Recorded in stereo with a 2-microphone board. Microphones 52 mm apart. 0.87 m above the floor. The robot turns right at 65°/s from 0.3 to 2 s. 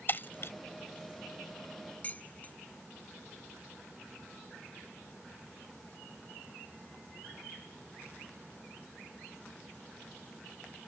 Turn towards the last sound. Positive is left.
turn(degrees=30)  # may be behind; listen again after turning